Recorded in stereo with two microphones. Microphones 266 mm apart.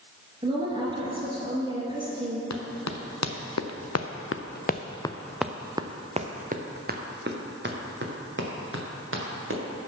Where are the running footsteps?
85° left, 1.3 m; by 9.6 s 50° right (ahead or behind), 2.5 m.